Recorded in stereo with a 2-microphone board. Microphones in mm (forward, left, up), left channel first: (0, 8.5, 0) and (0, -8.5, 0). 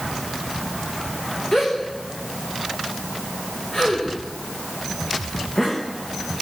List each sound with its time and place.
1.5 s a gasp: 45° left (ahead or behind), 5.5 m